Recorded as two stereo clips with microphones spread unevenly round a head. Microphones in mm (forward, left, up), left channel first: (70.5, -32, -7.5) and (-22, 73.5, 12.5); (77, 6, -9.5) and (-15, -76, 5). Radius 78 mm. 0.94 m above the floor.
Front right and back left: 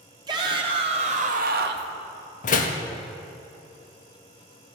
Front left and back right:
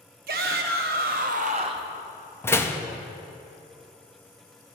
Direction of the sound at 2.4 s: 25° right.